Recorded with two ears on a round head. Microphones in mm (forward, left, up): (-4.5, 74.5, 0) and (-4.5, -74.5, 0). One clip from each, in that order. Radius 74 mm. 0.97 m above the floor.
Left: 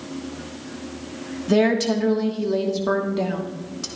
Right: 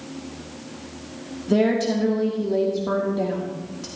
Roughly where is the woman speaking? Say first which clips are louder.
Left 1 dB; left.